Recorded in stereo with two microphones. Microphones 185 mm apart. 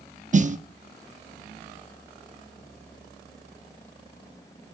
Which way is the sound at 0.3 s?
40° right (ahead or behind).